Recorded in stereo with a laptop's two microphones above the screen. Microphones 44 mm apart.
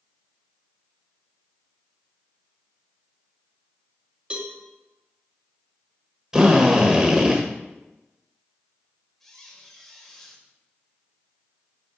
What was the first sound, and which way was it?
A cowbell, 25° right (ahead or behind).